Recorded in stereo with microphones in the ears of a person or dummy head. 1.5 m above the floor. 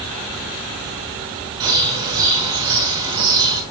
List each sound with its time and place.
1.6 s a bird: 15° right (ahead or behind), 3 m